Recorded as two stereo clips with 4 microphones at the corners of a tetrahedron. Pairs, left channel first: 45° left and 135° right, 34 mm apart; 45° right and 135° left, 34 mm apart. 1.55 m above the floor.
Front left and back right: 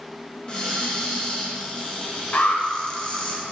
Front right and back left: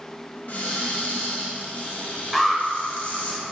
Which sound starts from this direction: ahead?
A cupboard door, at 0.5 s.